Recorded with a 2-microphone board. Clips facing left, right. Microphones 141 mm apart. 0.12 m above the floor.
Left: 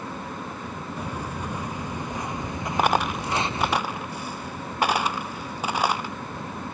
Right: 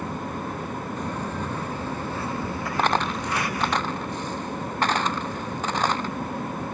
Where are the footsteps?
10° left (ahead or behind); by 3.8 s 25° left (ahead or behind).